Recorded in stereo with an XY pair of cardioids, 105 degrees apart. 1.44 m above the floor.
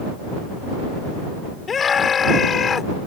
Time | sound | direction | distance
1.7 | a scream | 40° left | ?